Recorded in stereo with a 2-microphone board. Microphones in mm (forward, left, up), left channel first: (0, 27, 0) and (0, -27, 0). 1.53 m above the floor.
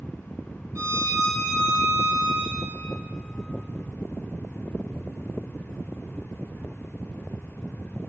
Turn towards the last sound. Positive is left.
turn(degrees=-65)  # may be behind; listen again after turning